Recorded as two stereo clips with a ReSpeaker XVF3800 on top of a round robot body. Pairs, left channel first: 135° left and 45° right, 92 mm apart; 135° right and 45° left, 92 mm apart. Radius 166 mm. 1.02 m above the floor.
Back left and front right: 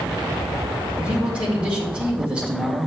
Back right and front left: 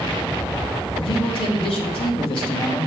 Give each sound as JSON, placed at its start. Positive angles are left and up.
{"t": 1.0, "sound": "a man speaking", "azimuth_deg": -120, "distance_m": 2.0}